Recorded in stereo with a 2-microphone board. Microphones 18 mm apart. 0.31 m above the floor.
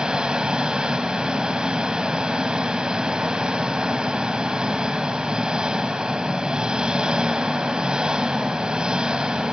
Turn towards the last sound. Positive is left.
turn(degrees=-60)  # may be behind; listen again after turning